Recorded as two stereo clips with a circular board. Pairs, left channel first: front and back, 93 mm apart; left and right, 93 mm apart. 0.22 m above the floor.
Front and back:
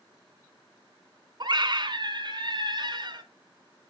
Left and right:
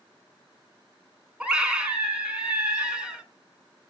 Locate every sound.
1.4 s a scream: 165° right, 2 m